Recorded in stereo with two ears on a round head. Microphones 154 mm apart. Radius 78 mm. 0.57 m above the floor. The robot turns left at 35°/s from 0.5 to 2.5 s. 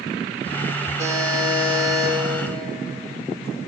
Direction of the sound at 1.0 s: 50° right.